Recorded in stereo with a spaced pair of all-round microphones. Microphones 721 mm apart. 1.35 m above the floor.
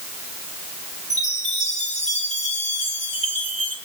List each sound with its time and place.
1.1 s a chime: 10° left (ahead or behind), 5 m